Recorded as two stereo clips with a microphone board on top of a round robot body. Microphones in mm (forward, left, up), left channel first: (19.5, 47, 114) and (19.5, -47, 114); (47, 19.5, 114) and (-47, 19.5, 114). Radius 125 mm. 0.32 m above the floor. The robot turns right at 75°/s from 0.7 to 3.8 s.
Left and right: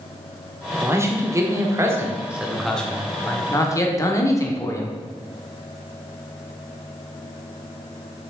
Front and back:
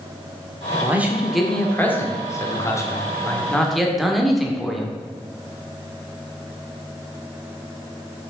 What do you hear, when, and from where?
0.8 s a man speaking: 135° right, 1.6 m; by 4.9 s 90° left, 1.6 m